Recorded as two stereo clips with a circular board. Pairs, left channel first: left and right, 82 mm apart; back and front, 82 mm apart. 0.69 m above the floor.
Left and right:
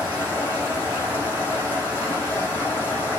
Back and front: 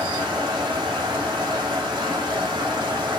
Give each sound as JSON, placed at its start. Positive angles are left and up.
{"t": 0.0, "sound": "running water", "azimuth_deg": 25, "distance_m": 6.5}